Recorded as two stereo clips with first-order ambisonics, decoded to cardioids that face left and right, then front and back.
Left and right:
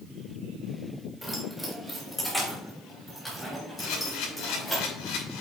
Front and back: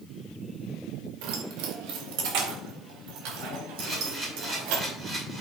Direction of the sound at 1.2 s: Straight behind.